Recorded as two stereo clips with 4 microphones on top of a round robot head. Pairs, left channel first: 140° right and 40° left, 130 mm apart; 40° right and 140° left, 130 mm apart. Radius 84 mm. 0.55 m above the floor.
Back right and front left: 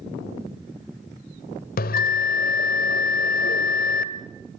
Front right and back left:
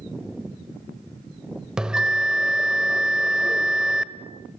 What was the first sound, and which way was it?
A bell, 135° right.